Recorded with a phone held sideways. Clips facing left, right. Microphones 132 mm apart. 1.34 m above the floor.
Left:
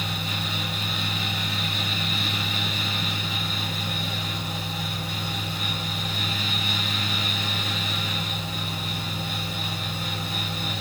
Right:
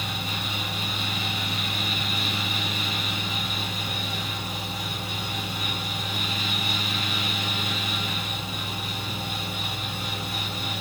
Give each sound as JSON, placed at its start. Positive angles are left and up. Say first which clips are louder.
{"t": 0.0, "sound": "a fan", "louder": "left 1 dB", "side_deg": -20, "distance_m": 1.8}